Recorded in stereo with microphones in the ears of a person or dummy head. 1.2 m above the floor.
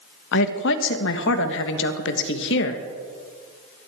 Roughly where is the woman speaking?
Left.